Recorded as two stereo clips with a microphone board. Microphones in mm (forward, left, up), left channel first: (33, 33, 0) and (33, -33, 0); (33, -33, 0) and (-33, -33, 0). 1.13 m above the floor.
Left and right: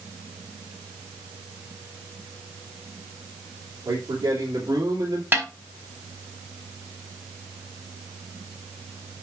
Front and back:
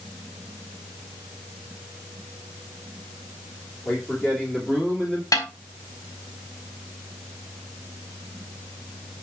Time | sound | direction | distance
3.9 | a man speaking | 70° right | 3.5 m
5.3 | a snare drum | 35° right | 3 m